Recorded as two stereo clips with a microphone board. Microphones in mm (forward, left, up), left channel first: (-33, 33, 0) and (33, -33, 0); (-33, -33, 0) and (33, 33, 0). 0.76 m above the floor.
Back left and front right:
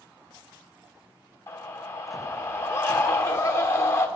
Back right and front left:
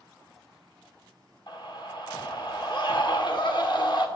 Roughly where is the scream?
Behind.